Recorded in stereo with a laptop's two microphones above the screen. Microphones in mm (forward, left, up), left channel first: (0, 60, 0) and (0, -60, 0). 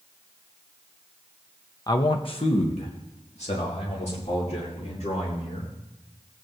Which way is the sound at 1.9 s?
35° left (ahead or behind).